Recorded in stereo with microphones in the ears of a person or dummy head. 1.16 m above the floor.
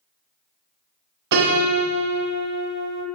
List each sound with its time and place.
1.3 s a piano: 65° right (ahead or behind), 1.0 m